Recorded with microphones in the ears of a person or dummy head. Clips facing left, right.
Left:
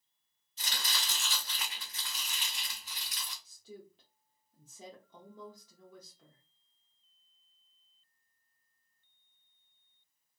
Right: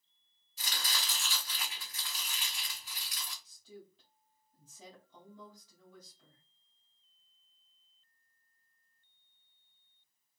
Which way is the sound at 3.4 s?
50° left (ahead or behind).